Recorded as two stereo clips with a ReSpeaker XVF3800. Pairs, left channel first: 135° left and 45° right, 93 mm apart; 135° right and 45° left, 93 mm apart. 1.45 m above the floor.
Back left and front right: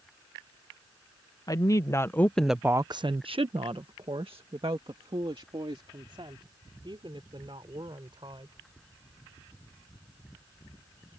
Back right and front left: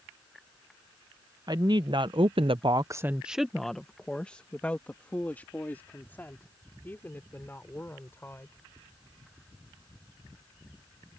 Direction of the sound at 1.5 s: 85° left.